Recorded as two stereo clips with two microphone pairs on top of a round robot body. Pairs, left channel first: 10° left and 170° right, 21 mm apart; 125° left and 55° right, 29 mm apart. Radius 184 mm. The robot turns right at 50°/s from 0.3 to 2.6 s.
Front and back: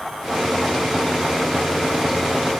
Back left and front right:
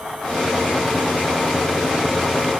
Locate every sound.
Only background noise.